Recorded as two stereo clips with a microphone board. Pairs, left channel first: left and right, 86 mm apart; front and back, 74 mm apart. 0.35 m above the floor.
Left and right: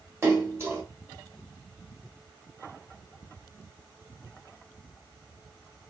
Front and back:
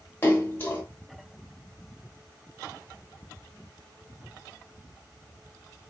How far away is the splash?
About 1.4 m.